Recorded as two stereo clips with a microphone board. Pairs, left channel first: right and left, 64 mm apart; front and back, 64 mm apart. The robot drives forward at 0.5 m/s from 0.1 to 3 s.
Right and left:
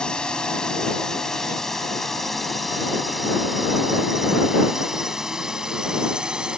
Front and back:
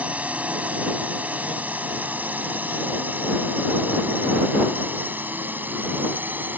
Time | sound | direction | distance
0.0 | a drone | 150° right | ?